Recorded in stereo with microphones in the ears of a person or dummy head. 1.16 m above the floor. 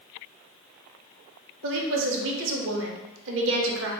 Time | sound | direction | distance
1.6 | a woman speaking | 75° right (ahead or behind) | 0.8 m